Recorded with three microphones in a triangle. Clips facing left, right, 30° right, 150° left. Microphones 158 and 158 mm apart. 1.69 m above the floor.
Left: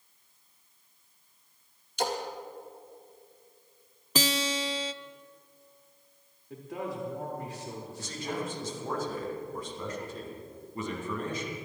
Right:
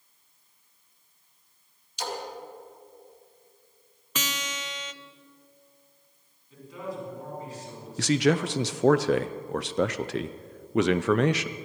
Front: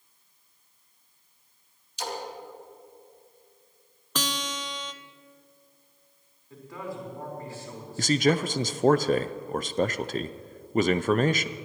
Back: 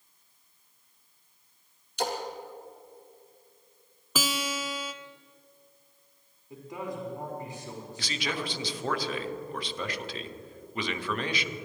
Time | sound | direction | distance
2.0 | a splash | 125° left | 2.5 m
4.2 | a guitar | 70° left | 0.6 m
6.5 | a man speaking | 80° left | 4.5 m
8.0 | a man speaking | 75° right | 0.6 m